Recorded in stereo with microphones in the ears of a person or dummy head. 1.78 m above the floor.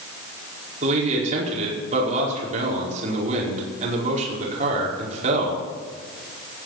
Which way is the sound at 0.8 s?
45° right (ahead or behind).